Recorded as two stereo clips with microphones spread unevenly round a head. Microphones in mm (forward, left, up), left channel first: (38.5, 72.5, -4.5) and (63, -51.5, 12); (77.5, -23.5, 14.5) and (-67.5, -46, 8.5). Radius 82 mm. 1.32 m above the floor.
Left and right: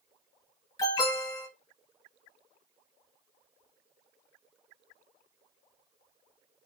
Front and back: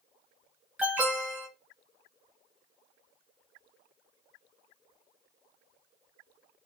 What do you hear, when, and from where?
0.8 s an alarm: 120° left, 1.0 m